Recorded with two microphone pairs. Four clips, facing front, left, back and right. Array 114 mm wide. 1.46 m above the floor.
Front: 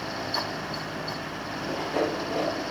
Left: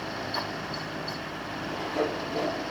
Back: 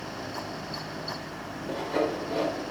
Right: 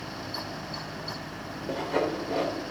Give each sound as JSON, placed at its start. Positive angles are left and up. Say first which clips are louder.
{"t": 1.7, "sound": "sawing", "louder": "right 2 dB, even", "azimuth_deg": -105, "distance_m": 5.0}